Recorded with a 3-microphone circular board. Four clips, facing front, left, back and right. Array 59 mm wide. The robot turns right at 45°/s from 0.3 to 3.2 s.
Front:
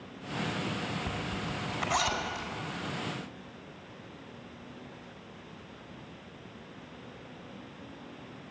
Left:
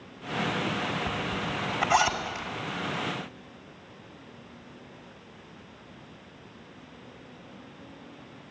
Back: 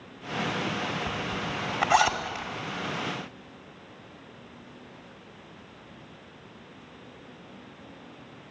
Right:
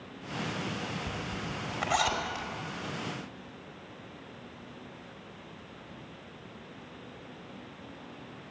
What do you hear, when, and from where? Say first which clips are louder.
1.1 s a zipper: left 6 dB, back 4 dB; 125° left, 2.0 m; by 2.5 s 175° right, 2.0 m